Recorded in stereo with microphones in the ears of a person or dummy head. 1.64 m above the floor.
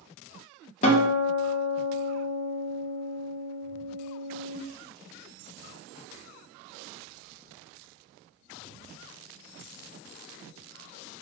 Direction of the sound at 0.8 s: 40° left (ahead or behind).